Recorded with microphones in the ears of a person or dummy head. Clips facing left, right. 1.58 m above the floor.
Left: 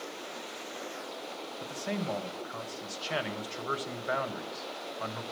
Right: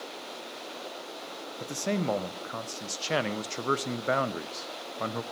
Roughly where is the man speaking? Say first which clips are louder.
Right 6 dB; right.